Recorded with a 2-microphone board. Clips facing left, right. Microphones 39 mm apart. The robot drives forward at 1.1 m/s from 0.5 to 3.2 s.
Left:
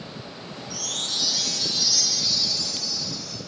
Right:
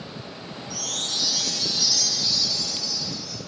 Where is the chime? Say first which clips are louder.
Even; centre (ahead or behind), 3 m.